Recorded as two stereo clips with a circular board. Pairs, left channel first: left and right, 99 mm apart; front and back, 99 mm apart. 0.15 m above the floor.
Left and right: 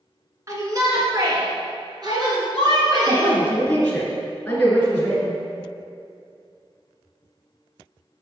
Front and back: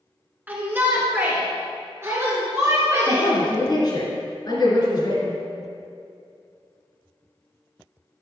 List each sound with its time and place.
0.5 s a shout: 120° right, 1.4 m; by 3.3 s 125° right, 2.5 m
3.1 s a woman speaking: 20° left, 1.8 m